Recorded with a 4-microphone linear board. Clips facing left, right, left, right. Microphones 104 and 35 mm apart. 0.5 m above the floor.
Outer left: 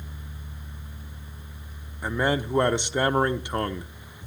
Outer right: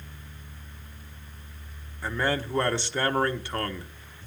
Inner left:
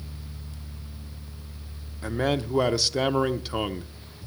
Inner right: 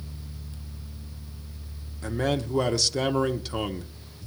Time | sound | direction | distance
2.0 | a man speaking | 15° left (ahead or behind) | 0.7 m